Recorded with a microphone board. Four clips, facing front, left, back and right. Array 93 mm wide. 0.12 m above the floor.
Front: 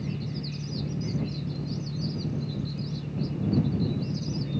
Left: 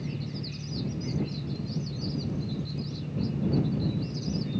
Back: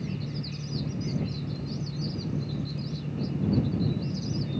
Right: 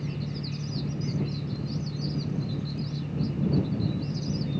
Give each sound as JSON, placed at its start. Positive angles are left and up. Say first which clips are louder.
{"t": 0.0, "sound": "an engine running", "louder": "right 2 dB, front 1 dB", "azimuth_deg": -70}